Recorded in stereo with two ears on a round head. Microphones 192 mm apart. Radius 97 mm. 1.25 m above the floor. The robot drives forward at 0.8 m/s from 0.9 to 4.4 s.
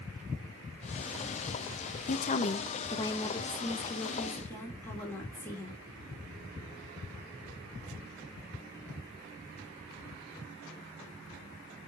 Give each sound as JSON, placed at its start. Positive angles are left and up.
{"t": 2.1, "sound": "a woman speaking", "side_deg": 40, "distance_m": 0.7}